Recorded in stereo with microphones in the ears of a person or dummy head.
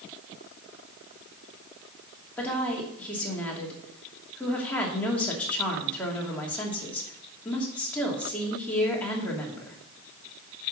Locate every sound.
2.4 s a woman speaking: 5° left (ahead or behind), 2.5 m